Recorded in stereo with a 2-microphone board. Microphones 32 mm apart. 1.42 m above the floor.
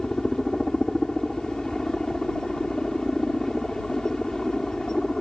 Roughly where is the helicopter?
Centre.